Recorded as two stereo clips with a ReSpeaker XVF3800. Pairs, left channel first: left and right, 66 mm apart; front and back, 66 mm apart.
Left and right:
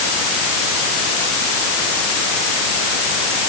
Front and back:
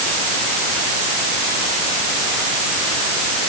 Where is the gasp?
No gasp in this recording.